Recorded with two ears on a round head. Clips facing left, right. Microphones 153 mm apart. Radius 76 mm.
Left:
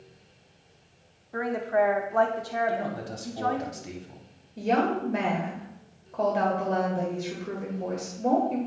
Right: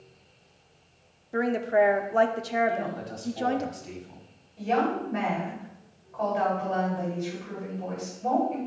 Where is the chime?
I don't hear a chime.